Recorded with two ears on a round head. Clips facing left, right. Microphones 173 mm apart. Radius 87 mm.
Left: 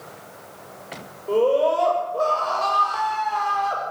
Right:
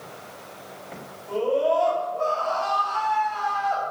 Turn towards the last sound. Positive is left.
turn(degrees=60)  # may be behind; listen again after turning